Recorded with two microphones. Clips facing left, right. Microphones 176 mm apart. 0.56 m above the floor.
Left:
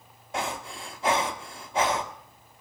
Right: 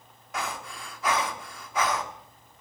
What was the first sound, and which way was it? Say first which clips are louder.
Breathing: left 3 dB; 30° left (ahead or behind).